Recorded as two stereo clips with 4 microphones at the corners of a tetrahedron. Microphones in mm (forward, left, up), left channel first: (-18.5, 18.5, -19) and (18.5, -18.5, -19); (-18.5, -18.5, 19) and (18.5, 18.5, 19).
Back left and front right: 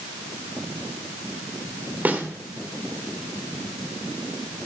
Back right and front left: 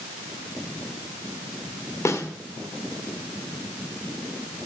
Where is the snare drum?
105° right, 1.4 m.